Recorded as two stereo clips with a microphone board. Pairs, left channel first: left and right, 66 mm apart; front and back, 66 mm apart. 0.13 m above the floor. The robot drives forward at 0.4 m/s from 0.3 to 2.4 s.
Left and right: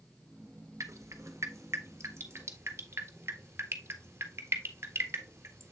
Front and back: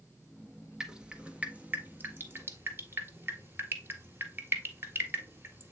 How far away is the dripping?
About 1.3 m.